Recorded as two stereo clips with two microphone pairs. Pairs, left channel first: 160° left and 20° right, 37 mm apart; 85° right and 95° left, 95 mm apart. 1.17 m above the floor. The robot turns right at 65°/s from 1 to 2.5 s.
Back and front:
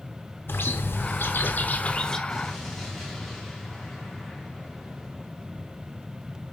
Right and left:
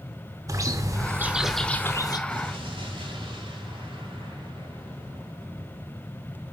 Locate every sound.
0.5 s a bird: 150° left, 0.8 m; by 2.2 s 130° right, 0.8 m
2.3 s an explosion: 60° left, 2.5 m; by 6.0 s 75° left, 2.5 m